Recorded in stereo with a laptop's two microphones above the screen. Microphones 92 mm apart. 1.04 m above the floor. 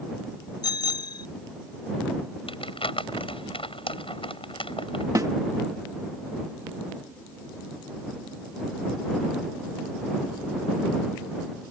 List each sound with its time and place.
0.6 s a bicycle bell: 50° left (ahead or behind)
2.5 s crumpling: 80° left
5.2 s a snare drum: 35° right (ahead or behind)